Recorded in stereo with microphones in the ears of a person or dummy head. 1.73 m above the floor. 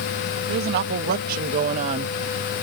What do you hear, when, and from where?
0.5 s a woman speaking: 60° right (ahead or behind); by 2.6 s 15° right (ahead or behind)